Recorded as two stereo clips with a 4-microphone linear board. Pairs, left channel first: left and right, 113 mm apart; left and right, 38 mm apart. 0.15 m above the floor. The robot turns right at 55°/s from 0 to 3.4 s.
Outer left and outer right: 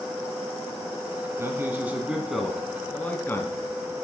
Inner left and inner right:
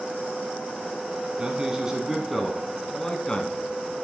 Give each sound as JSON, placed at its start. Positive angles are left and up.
{"t": 1.4, "sound": "a man speaking", "side_deg": -25, "distance_m": 1.1}